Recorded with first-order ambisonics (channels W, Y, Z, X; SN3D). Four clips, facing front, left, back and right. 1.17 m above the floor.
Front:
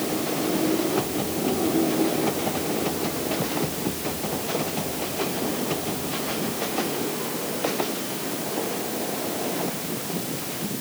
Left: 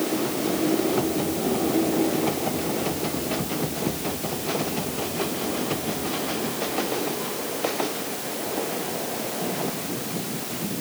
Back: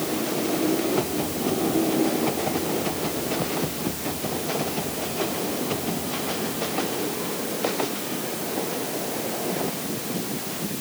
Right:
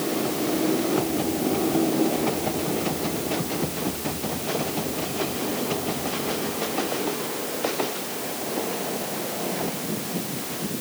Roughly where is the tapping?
I don't hear tapping.